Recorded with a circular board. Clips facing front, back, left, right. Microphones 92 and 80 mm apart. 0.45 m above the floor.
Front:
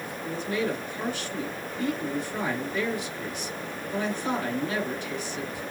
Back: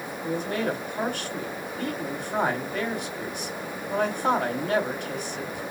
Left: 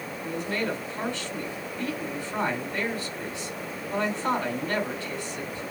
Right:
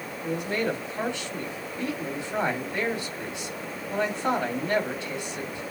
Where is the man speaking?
160° right, 2 m.